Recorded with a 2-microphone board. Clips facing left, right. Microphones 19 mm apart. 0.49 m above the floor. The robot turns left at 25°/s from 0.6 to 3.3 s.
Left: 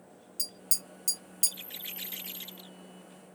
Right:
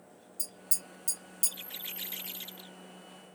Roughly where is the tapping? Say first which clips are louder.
Left 5 dB; left.